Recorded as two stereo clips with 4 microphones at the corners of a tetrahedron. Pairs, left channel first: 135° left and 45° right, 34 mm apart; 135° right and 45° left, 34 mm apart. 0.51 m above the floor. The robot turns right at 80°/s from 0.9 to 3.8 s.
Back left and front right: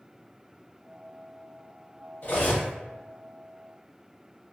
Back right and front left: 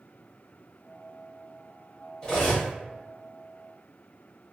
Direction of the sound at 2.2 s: 165° left.